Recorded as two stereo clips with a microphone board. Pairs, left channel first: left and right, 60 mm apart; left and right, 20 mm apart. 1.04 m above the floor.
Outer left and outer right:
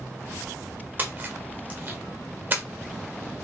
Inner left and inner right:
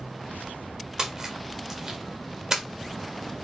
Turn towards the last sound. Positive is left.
turn(degrees=-35)  # may be behind; listen again after turning